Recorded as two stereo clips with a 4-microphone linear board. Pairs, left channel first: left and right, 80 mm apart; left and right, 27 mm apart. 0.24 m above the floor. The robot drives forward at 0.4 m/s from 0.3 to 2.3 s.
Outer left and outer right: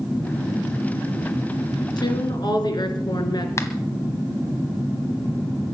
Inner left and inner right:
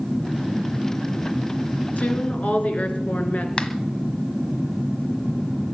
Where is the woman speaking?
65° left (ahead or behind), 3 m; by 3.5 s 60° left (ahead or behind), 3 m.